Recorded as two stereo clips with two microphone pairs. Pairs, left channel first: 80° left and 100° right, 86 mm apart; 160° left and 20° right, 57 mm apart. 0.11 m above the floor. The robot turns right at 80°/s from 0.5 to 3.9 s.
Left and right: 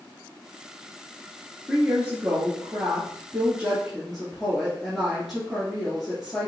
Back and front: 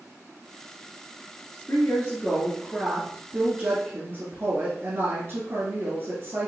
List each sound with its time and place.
1.7 s a woman speaking: 170° left, 1.4 m; by 6.5 s 15° right, 1.4 m